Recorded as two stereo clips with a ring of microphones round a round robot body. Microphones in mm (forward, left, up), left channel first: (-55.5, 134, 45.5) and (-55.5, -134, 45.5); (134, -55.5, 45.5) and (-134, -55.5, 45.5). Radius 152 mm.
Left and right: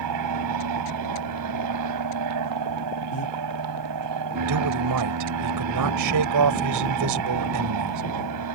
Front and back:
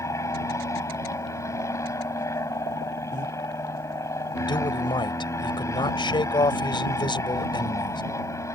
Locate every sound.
0.0 s an aircraft: 80° right
3.1 s breathing: 115° left
4.5 s a man speaking: 75° right